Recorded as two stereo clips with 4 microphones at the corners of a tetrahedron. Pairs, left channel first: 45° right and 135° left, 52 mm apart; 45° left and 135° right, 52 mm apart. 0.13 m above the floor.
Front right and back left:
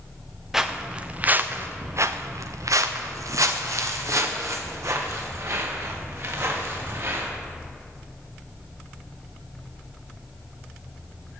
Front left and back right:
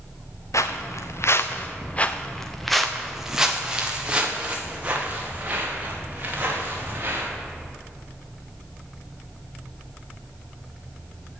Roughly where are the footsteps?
Ahead left.